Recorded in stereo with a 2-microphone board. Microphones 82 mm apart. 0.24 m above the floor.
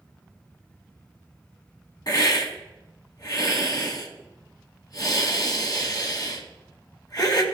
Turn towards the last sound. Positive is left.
turn(degrees=50)  # may be behind; listen again after turning